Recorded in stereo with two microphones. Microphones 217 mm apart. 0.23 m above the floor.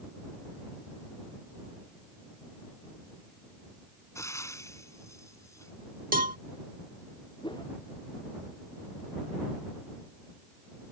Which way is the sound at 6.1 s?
40° right (ahead or behind).